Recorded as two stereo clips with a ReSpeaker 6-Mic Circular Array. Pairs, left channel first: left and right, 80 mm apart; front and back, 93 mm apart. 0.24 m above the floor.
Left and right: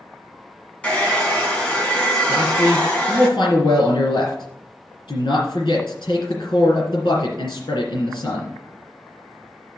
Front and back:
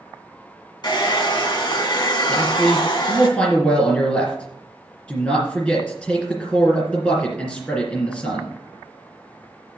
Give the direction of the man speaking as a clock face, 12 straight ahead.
10 o'clock.